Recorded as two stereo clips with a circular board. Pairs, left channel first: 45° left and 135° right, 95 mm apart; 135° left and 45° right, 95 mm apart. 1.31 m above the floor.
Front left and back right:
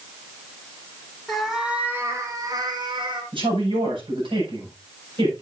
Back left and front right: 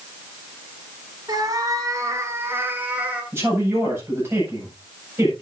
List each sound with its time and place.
1.3 s a cat meowing: 40° right, 1.6 m; by 3.2 s 120° right, 2 m
3.3 s a woman speaking: 110° right, 7.5 m